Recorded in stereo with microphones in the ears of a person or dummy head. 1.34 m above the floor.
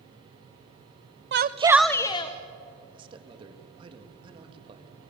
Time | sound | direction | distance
1.3 | a shout | 50° right (ahead or behind) | 0.8 m
2.9 | a man speaking | 30° right (ahead or behind) | 2 m